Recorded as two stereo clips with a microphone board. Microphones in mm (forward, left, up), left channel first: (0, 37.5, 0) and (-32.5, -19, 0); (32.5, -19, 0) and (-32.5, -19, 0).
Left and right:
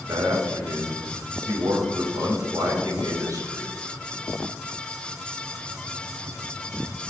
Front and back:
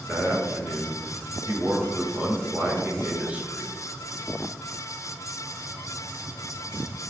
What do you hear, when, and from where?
0.1 s a man speaking: 115° right, 4 m